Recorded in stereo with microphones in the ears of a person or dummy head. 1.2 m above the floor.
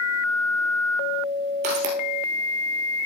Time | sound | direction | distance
1.6 | footsteps | 45° right (ahead or behind) | 1.6 m